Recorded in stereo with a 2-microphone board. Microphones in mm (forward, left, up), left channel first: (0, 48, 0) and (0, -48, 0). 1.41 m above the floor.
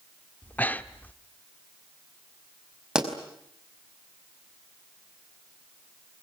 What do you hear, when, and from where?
0.4 s breathing: 20° left (ahead or behind), 1.1 m
3.0 s a pop: 5° right (ahead or behind), 5 m